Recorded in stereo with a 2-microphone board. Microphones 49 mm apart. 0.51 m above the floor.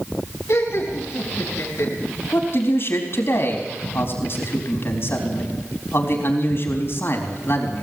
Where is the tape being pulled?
No tape being pulled in this recording.